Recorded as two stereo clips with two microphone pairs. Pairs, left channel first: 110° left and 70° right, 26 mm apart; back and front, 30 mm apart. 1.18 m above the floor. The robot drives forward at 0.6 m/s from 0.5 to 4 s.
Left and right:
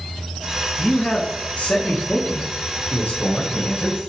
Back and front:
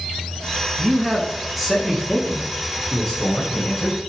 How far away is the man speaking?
About 1.4 m.